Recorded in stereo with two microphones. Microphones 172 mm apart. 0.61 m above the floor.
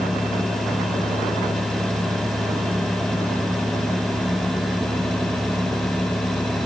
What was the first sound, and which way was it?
Only background noise.